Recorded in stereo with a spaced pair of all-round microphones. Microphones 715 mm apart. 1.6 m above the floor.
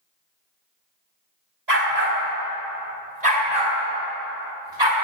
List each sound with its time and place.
1.7 s a dog barking: 70° right (ahead or behind), 4 m; by 4.9 s 35° right (ahead or behind), 6 m